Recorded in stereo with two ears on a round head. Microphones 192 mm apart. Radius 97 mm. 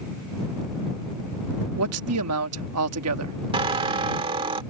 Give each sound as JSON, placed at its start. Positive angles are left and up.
{"t": 1.8, "sound": "a man speaking", "side_deg": -80}
{"t": 3.5, "sound": "a squeak", "side_deg": -25}